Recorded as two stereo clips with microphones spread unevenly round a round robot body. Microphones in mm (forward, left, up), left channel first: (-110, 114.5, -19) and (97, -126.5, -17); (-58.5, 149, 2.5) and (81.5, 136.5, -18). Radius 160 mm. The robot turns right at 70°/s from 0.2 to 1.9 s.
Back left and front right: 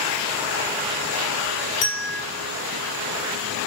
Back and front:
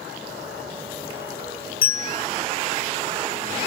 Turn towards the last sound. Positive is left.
turn(degrees=-170)